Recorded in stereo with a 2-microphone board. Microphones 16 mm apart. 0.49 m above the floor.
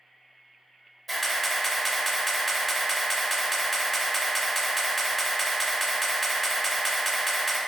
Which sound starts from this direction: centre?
A camera shutter, at 1.1 s.